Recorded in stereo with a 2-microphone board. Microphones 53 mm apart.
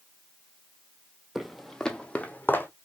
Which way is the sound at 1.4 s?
5° right (ahead or behind).